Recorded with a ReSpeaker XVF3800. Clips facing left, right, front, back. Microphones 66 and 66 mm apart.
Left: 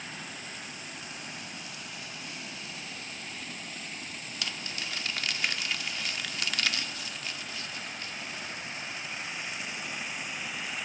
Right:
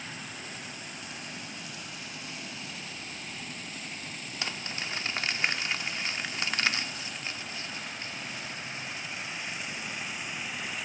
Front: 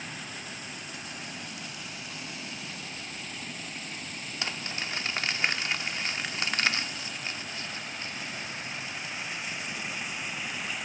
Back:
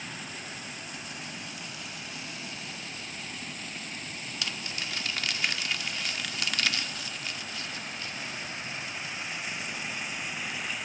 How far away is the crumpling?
About 0.7 m.